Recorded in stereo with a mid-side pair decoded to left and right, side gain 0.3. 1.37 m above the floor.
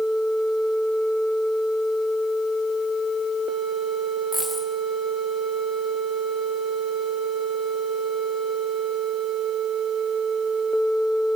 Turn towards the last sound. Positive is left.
turn(degrees=-5)